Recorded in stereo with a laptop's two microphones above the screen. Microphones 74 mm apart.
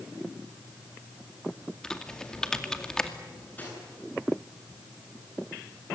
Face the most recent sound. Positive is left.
turn(degrees=20)  # may be behind; listen again after turning